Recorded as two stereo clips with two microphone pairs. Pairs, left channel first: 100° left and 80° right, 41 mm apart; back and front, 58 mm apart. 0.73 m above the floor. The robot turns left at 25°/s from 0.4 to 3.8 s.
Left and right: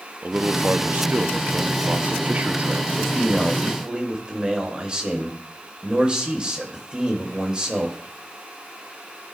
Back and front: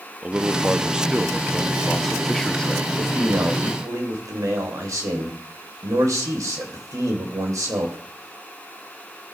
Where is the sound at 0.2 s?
60° right, 0.6 m; by 2.8 s 120° right, 0.6 m.